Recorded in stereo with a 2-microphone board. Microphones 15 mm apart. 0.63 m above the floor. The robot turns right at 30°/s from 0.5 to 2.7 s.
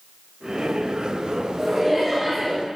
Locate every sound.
1.6 s laughter: 10° right (ahead or behind), 2.5 m; by 2.5 s 35° right (ahead or behind), 2.5 m